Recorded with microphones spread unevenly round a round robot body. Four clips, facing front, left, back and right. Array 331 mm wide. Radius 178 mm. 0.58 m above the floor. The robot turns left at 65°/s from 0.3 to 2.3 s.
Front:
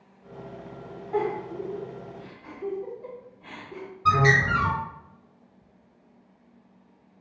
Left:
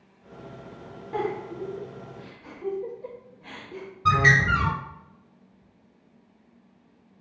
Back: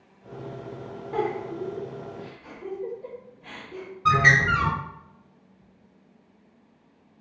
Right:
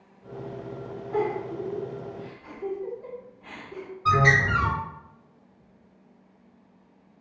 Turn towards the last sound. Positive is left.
turn(degrees=90)